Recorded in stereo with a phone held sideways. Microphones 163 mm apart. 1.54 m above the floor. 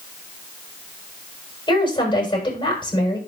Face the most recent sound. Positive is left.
turn(degrees=30)  # may be behind; listen again after turning